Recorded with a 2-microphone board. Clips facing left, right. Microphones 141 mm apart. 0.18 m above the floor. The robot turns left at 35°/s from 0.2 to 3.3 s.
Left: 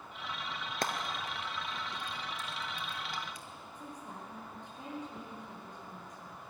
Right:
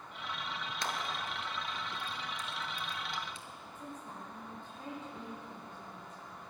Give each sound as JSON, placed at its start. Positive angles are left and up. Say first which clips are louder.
{"t": 0.8, "sound": "frying", "louder": "left 3 dB", "side_deg": 55, "distance_m": 1.6}
{"t": 3.8, "sound": "a woman speaking", "louder": "even", "side_deg": 15, "distance_m": 5.0}